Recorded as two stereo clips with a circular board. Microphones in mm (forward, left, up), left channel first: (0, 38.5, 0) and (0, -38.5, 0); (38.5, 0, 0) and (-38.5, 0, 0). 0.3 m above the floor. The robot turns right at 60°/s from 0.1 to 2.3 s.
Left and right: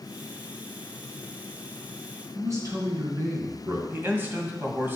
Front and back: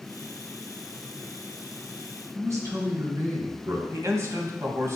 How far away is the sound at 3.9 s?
About 2 m.